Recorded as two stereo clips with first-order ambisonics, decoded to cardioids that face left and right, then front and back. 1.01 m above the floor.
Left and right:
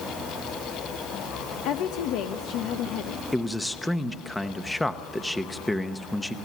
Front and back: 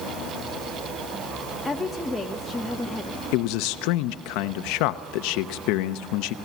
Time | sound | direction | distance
1.6 | a woman speaking | 85° left | 1.1 m
3.3 | a man speaking | 5° left | 0.8 m